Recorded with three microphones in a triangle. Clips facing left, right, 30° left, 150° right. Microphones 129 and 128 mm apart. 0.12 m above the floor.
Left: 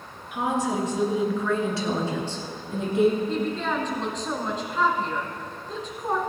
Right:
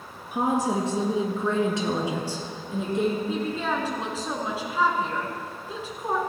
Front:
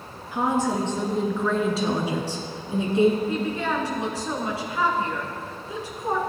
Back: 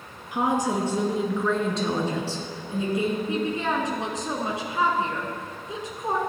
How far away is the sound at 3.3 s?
About 1.6 m.